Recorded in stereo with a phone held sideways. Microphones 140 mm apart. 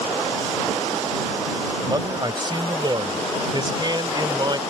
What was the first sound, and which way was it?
A man speaking, 35° right (ahead or behind).